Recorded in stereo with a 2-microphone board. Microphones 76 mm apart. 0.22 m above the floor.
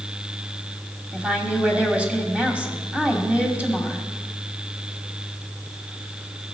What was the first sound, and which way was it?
A woman speaking, 15° right (ahead or behind).